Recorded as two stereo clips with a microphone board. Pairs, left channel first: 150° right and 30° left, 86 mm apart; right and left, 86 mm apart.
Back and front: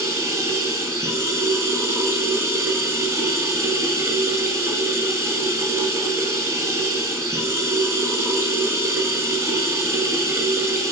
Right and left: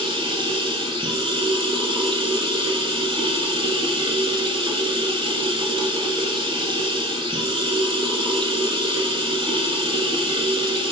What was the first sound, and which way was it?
Running water, 85° left.